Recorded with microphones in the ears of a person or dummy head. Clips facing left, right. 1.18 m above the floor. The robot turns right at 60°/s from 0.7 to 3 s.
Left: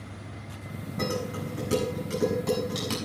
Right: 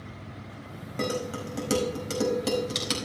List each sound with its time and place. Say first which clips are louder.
1.0 s dishes clattering: right 1 dB; 45° right (ahead or behind), 5 m; by 3.0 s 15° right (ahead or behind), 5 m